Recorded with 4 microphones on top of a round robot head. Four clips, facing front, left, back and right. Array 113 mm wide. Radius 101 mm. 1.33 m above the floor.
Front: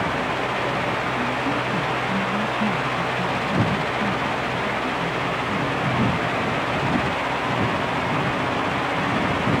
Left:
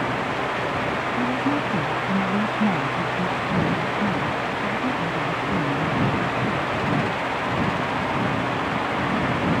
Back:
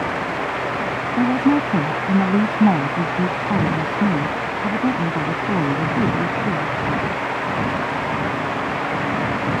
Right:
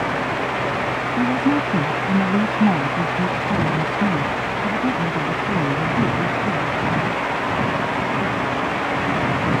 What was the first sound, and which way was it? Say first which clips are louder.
A woman speaking: right 6 dB, back 7 dB; 160° right.